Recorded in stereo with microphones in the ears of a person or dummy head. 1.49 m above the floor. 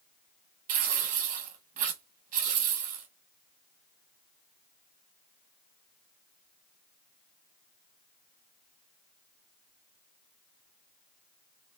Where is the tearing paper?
45° right (ahead or behind), 1.4 m.